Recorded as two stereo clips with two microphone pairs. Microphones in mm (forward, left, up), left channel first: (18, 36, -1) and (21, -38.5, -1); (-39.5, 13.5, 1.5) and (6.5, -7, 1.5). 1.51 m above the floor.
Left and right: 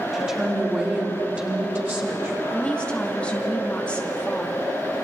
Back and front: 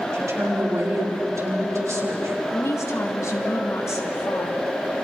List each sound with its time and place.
0.1 s a woman speaking: 10° right, 3.5 m; by 2.4 s 35° right, 4 m
2.5 s a woman speaking: 165° left, 2.5 m